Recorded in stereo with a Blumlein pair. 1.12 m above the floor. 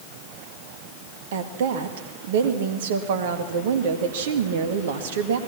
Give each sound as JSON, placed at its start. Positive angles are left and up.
{"t": 1.3, "sound": "a woman speaking", "azimuth_deg": -55, "distance_m": 2.0}